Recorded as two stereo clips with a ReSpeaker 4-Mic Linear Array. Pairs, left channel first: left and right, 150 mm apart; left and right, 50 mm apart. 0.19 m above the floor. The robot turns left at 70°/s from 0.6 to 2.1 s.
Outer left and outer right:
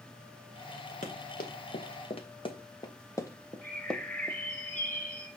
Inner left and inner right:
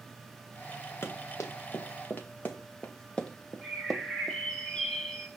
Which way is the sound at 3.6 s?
15° left (ahead or behind).